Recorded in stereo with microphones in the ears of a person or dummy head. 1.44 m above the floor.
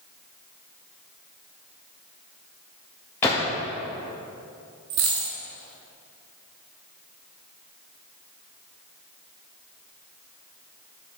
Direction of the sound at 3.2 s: 10° left (ahead or behind).